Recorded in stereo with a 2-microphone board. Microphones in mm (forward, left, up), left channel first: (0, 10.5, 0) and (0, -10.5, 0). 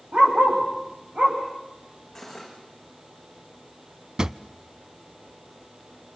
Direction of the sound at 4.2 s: 35° right (ahead or behind).